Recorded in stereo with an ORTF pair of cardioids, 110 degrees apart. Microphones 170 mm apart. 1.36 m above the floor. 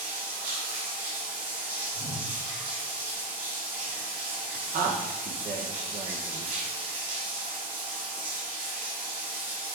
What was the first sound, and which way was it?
Running water, 70° right.